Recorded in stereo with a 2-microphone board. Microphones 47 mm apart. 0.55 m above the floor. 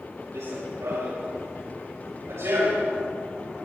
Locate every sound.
0.3 s running footsteps: 80° right, 5 m; by 2.9 s 75° right (ahead or behind), 6.5 m